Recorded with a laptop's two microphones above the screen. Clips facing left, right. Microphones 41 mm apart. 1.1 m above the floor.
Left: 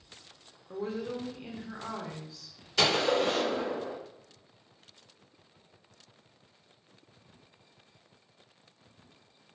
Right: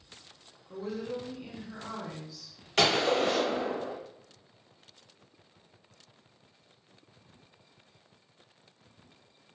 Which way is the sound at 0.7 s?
40° left (ahead or behind).